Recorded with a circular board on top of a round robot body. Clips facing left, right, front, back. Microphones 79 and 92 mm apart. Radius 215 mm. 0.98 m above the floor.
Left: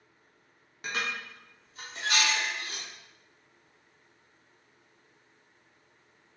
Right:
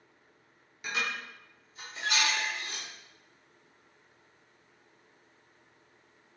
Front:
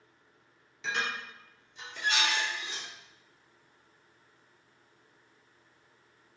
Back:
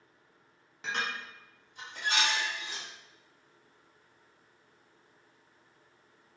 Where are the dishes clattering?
135° left, 1.1 m.